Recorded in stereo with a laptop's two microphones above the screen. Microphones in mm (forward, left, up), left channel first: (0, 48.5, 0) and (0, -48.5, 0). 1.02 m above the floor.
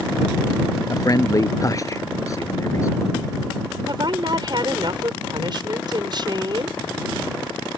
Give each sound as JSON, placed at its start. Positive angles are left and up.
{"t": 0.9, "sound": "a man speaking", "side_deg": 35}
{"t": 3.9, "sound": "a woman speaking", "side_deg": -50}